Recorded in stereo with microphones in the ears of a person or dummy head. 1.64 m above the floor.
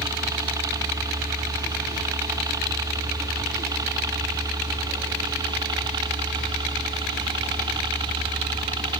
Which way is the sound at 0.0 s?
20° right (ahead or behind).